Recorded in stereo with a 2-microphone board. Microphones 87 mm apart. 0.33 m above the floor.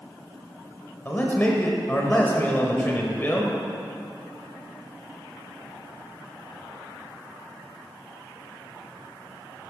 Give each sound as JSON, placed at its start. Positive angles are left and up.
{"t": 1.1, "sound": "a man speaking", "side_deg": 25, "distance_m": 1.2}